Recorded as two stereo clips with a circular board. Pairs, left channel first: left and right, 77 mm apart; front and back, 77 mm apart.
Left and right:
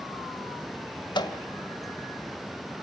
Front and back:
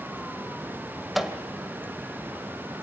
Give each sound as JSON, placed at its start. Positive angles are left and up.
{"t": 1.1, "sound": "a microwave", "azimuth_deg": 90, "distance_m": 1.8}